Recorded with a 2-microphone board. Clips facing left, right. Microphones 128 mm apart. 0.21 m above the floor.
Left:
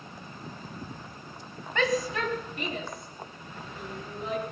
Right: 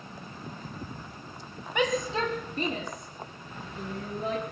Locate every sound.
1.8 s a shout: 15° right (ahead or behind), 1.4 m; by 4.4 s 50° right (ahead or behind), 4 m